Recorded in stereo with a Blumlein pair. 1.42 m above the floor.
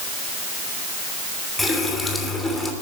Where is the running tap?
10° left, 3 m.